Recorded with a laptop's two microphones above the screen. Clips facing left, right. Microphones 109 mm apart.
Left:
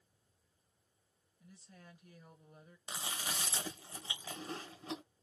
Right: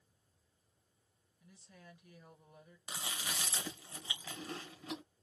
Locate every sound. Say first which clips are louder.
1.4 s a woman speaking: left 1 dB; 40° left (ahead or behind), 1.7 m
2.9 s chewing: left 1 dB; 30° left (ahead or behind), 0.9 m